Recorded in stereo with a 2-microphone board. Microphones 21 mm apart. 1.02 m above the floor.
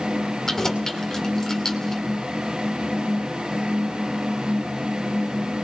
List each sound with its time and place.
0.5 s keys jangling: 20° left (ahead or behind), 2.5 m